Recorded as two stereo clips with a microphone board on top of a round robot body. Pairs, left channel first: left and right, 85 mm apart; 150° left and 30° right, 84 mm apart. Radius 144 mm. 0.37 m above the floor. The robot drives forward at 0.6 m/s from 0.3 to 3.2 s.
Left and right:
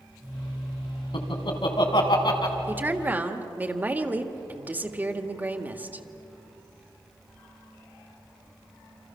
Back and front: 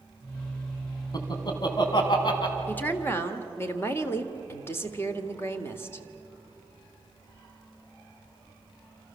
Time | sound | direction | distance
1.1 | laughter | 110° left | 3.5 m
2.7 | a woman speaking | 150° right | 1.7 m